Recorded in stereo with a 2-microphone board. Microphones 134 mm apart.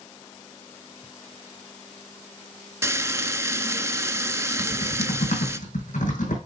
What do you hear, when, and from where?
2.8 s frying: 20° right (ahead or behind), 0.6 m
4.6 s typing on a keyboard: 70° left (ahead or behind), 4.5 m